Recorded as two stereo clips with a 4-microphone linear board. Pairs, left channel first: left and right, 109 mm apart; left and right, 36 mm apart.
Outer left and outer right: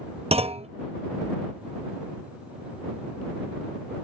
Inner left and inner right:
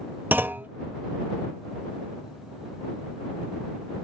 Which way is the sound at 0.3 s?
70° right (ahead or behind).